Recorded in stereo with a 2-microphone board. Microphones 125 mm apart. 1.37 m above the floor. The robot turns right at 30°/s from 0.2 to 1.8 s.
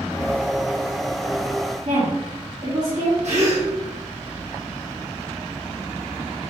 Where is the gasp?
65° right (ahead or behind), 1.5 m.